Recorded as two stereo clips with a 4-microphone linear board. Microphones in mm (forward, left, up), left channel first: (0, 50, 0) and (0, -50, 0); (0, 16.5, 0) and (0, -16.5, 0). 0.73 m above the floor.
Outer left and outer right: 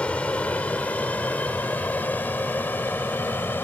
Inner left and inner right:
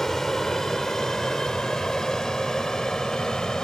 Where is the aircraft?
10° left (ahead or behind); by 3.6 s 20° left (ahead or behind).